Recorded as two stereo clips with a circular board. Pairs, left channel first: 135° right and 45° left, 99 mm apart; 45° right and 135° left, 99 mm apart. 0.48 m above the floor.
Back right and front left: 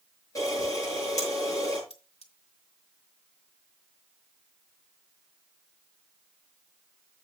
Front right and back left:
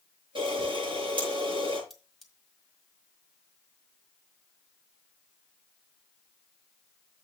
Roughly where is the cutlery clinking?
Behind right.